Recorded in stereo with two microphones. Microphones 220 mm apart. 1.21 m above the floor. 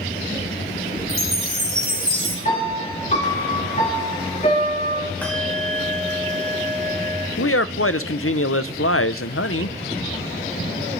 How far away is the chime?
About 5 m.